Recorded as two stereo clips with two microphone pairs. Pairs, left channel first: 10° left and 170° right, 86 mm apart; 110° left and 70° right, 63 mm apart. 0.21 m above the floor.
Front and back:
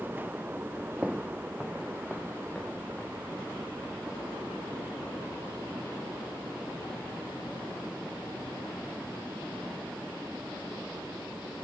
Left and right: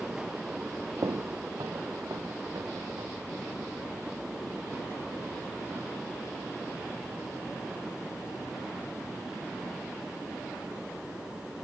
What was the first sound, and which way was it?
Footsteps, 90° right.